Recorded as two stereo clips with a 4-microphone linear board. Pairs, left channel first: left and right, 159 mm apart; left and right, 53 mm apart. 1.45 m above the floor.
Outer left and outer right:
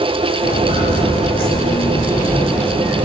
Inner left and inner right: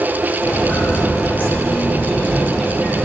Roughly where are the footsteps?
Left.